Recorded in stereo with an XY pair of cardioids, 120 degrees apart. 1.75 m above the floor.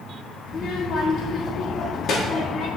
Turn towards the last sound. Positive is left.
turn(degrees=40)